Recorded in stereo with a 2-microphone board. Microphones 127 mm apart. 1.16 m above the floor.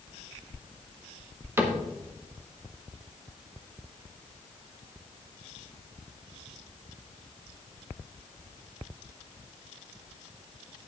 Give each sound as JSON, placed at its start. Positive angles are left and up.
{"t": 1.6, "sound": "a cupboard door", "side_deg": -20, "distance_m": 1.6}